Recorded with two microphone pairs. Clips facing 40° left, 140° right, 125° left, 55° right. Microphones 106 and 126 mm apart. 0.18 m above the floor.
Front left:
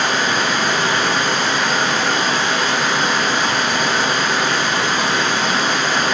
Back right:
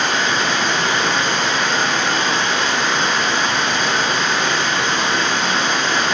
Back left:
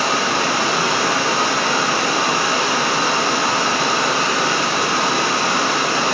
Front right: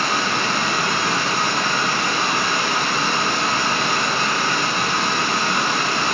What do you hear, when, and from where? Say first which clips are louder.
0.0 s running water: front left 1 dB, back left 3 dB; 125° left, 1.2 m